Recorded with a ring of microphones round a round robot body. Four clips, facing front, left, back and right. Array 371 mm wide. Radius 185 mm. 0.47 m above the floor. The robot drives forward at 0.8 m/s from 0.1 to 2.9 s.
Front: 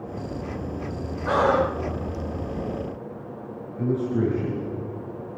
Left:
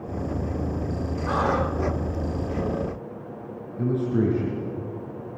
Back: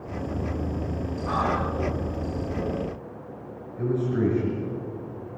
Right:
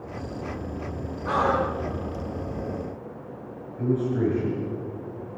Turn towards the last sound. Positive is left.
turn(degrees=105)